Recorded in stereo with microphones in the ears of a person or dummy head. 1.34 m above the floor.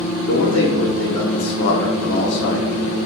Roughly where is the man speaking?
Left.